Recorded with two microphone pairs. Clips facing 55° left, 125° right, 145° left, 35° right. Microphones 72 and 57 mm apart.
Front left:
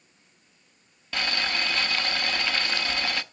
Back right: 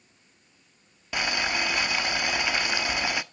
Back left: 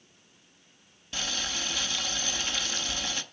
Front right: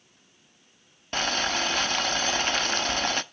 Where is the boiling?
55° right, 0.5 m.